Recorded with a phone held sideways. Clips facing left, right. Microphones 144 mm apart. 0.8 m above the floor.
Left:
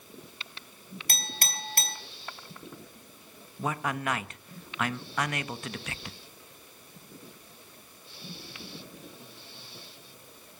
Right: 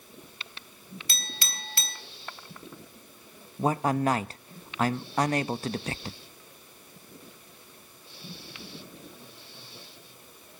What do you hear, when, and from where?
1.1 s a clink: 50° left (ahead or behind), 3 m
3.6 s a man speaking: 35° right (ahead or behind), 0.6 m